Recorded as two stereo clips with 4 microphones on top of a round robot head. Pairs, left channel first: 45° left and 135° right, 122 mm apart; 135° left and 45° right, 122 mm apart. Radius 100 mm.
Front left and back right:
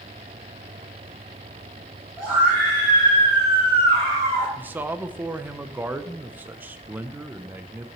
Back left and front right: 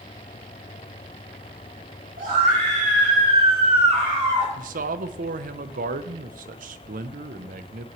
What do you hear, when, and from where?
2.2 s a scream: 55° right, 3 m; by 4.5 s 105° right, 3 m
4.6 s a man speaking: 60° right, 0.5 m